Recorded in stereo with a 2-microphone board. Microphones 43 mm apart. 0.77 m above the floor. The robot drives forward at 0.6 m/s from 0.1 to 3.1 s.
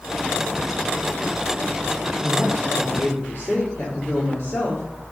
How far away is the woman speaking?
About 1.0 m.